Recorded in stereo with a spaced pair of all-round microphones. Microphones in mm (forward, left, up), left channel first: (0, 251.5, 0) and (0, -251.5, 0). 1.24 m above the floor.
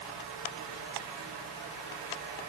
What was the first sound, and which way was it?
Only background noise.